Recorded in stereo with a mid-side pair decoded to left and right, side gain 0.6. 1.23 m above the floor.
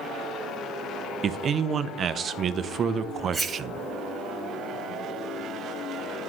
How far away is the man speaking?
About 0.6 m.